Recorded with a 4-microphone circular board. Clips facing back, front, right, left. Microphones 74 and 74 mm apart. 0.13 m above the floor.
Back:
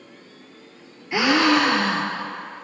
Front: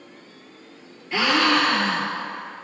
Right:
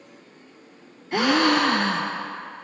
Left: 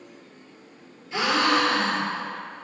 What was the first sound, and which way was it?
A gasp, 105° right.